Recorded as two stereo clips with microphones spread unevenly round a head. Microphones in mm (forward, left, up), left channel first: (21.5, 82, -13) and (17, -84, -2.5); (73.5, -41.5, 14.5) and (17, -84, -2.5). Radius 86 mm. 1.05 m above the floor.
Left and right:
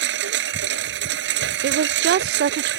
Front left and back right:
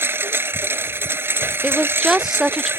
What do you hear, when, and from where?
0.0 s a lawn mower: 85° right
1.6 s a woman speaking: 65° right